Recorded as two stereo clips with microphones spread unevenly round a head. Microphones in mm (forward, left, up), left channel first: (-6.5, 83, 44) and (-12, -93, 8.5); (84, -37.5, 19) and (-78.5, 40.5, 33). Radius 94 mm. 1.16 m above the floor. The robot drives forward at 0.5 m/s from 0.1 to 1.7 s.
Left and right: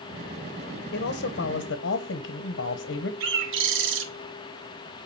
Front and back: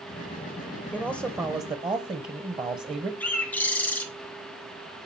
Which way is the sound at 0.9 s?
65° left.